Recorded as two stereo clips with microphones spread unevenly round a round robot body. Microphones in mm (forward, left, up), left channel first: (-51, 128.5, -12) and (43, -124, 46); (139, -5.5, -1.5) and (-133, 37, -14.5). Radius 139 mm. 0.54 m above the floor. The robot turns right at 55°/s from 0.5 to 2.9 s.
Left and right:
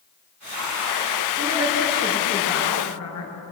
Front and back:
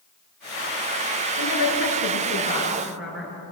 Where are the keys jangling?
No keys jangling in this recording.